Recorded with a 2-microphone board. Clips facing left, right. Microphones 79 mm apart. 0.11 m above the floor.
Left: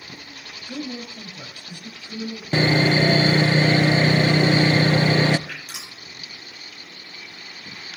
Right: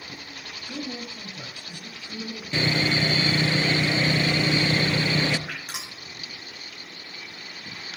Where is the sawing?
50° left (ahead or behind), 0.6 m.